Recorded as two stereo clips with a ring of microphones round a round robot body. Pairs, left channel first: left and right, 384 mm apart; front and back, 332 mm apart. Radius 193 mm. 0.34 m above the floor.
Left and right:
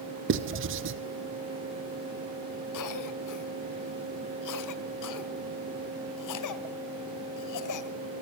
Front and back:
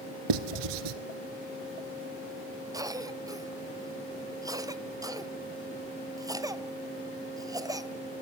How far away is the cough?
About 2 m.